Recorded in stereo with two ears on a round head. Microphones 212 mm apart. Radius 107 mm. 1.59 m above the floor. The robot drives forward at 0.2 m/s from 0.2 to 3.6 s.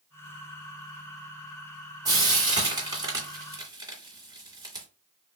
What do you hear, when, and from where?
2.0 s frying: 15° right (ahead or behind), 1.9 m